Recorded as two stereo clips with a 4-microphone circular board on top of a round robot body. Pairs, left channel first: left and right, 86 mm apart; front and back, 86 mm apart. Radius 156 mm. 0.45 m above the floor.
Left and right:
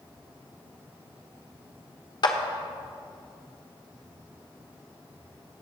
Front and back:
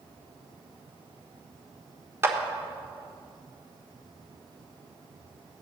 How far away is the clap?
About 1.2 m.